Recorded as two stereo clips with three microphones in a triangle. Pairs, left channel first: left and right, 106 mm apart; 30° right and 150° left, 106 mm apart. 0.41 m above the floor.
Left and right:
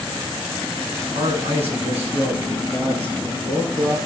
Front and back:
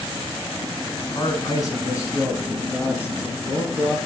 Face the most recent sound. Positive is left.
turn(degrees=-100)